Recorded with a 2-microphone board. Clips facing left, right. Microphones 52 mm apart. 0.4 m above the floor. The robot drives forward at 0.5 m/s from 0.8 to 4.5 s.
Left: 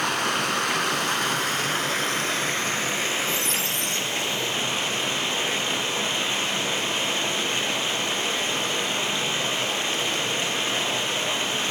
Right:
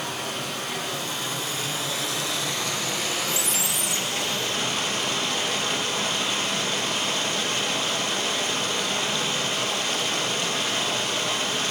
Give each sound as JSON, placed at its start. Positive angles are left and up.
{"t": 0.0, "sound": "running water", "side_deg": 75, "distance_m": 1.1}
{"t": 3.3, "sound": "a squeak", "side_deg": -10, "distance_m": 0.7}